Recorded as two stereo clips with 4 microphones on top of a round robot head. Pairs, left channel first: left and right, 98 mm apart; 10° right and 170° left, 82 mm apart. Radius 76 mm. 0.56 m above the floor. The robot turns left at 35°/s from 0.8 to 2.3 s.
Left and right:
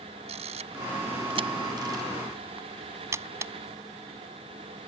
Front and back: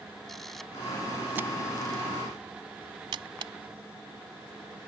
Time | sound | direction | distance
0.3 | a camera shutter | 100° right | ?